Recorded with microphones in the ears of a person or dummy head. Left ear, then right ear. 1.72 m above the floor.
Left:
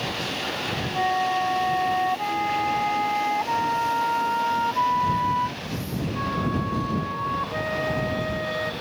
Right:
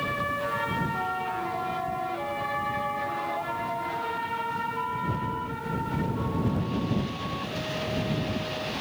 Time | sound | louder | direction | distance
0.9 | a flute | left 7 dB | 55° left (ahead or behind) | ?